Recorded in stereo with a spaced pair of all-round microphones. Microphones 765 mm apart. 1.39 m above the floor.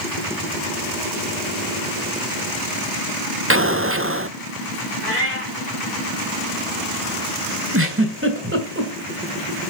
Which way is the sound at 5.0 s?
15° right (ahead or behind).